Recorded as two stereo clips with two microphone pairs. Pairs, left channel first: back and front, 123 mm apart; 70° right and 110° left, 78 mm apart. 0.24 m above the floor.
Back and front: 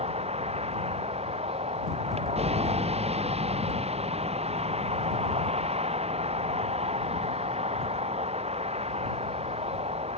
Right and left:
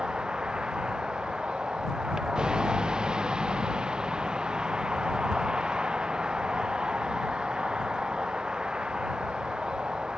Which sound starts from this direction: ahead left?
A vehicle, at 0.0 s.